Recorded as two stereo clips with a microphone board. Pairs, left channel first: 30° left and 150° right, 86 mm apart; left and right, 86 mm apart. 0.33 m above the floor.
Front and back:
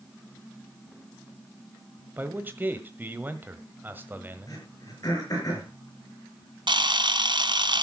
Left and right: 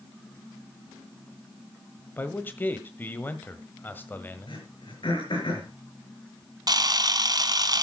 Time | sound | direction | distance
2.2 | a man speaking | 150° left | 1.4 m
4.5 | throat clearing | 70° left | 6 m
6.7 | a camera shutter | 130° right | 1.0 m